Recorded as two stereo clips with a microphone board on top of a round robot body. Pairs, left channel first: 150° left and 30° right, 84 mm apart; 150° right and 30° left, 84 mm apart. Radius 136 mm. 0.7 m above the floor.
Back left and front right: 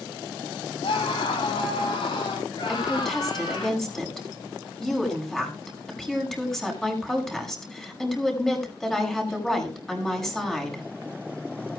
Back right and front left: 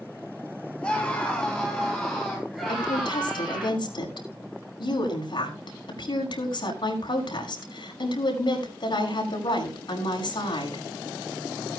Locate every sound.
0.8 s a scream: 130° left, 9.5 m; by 3.7 s 110° left, 9 m
2.7 s a woman speaking: 125° right, 5.5 m